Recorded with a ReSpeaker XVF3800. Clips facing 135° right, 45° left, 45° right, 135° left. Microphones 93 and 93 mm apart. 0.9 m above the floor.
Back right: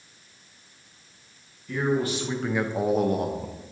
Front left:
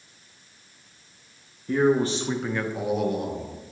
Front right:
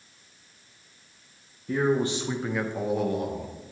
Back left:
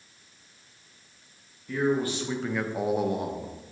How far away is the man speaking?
About 1.0 m.